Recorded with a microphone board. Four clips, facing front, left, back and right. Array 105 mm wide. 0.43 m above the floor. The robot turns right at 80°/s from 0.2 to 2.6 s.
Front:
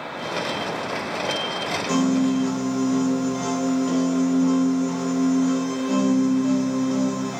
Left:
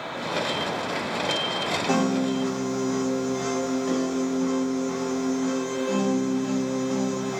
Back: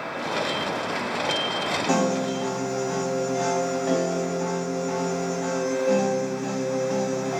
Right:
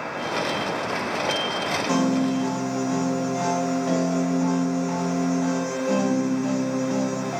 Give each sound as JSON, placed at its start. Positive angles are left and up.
{"t": 1.9, "sound": "a piano", "azimuth_deg": 150, "distance_m": 1.9}